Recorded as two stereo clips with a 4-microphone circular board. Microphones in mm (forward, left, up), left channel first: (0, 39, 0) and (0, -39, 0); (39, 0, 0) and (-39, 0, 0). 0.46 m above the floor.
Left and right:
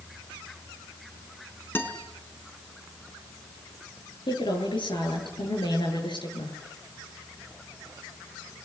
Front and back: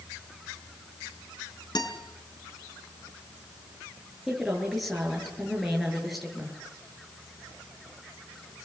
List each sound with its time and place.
1.8 s a guitar: 30° left, 3.5 m
4.3 s a woman speaking: 90° left, 9 m